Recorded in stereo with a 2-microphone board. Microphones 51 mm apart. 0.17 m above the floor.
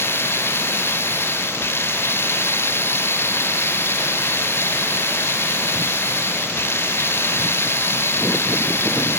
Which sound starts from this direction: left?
Running water, at 0.0 s.